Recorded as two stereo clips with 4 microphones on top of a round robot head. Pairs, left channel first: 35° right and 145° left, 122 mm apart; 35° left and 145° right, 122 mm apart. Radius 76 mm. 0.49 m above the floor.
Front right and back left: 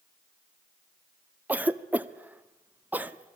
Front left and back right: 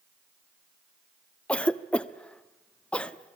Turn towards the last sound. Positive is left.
turn(degrees=100)